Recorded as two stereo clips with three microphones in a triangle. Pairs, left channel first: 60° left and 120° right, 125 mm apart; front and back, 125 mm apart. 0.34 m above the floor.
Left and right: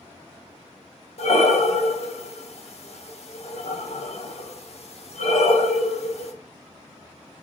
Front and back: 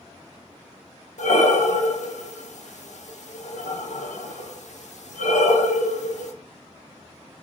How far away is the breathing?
About 0.5 m.